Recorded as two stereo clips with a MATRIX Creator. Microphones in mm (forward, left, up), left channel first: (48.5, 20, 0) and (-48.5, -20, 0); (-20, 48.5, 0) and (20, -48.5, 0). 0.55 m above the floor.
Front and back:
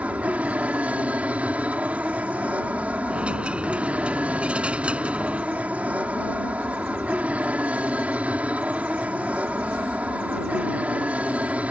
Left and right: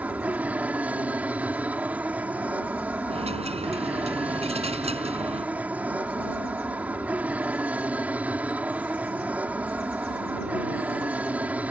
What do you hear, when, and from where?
0.0 s an aircraft: 110° right
3.1 s a dropped coin: 80° right